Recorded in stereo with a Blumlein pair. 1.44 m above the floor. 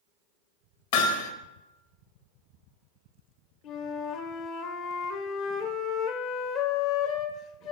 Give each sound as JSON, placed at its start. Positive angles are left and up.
{"t": 0.9, "sound": "hammering", "azimuth_deg": 50, "distance_m": 2.5}
{"t": 3.6, "sound": "a flute", "azimuth_deg": 40, "distance_m": 1.6}